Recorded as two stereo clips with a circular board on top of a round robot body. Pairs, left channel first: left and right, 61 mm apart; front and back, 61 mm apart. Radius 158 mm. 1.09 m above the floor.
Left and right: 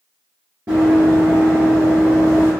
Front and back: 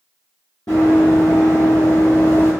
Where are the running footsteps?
35° right, 1.3 m; by 2.5 s 30° right, 2.5 m.